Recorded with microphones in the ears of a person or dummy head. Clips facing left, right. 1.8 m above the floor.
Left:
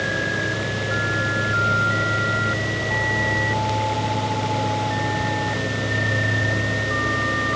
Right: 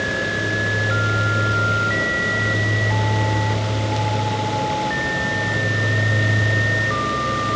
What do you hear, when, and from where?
Only background noise.